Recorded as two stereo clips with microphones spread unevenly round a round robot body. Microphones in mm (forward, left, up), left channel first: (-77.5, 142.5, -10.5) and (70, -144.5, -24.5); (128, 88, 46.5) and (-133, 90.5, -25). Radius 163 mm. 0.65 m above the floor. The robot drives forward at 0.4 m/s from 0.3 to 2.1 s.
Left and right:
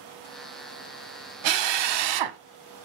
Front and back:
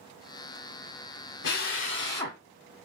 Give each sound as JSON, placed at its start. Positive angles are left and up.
{"t": 1.4, "sound": "a drill", "azimuth_deg": -55, "distance_m": 0.6}